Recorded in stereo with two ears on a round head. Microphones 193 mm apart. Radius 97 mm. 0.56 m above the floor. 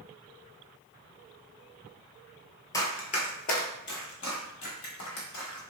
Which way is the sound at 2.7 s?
15° left (ahead or behind).